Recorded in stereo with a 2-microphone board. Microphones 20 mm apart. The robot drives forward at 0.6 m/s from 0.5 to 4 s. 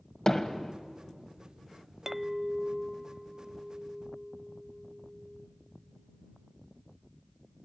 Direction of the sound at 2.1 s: 20° right (ahead or behind).